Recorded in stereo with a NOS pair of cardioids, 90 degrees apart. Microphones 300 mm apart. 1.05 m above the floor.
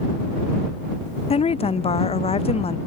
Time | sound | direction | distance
1.3 | a woman speaking | 20° left | ?